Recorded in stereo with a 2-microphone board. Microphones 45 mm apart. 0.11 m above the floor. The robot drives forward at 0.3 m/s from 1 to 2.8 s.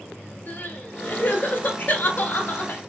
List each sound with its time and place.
0.5 s crying: 45° left (ahead or behind), 1.2 m